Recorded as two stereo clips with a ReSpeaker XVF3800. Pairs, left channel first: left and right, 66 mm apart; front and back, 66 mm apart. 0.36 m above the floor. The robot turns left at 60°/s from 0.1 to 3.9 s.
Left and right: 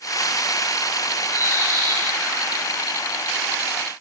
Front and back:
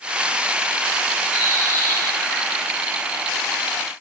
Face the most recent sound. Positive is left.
turn(degrees=180)